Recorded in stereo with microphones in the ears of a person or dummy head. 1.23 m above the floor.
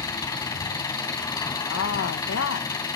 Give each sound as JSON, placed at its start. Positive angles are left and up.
{"t": 0.0, "sound": "an engine running", "side_deg": 15, "distance_m": 2.5}
{"t": 1.7, "sound": "a woman speaking", "side_deg": 75, "distance_m": 1.3}